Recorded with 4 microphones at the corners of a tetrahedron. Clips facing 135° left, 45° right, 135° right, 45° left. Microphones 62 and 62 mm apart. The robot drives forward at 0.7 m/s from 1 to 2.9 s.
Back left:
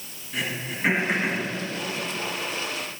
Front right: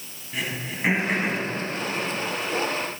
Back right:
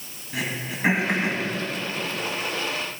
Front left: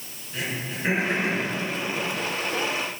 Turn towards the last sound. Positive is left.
turn(degrees=-150)